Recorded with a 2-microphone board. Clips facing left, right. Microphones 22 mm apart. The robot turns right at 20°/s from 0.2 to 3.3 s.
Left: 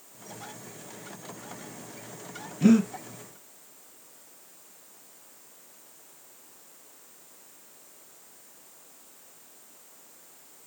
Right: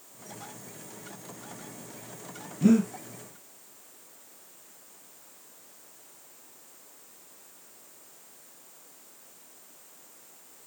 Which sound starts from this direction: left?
Breathing, at 2.6 s.